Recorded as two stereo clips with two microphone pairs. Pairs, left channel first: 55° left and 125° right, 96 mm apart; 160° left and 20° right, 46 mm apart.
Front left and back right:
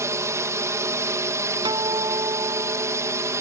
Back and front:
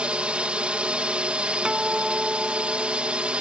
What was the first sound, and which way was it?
A drone, 80° right.